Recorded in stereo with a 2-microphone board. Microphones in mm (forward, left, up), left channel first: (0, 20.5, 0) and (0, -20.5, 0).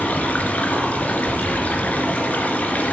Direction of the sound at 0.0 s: 40° left (ahead or behind).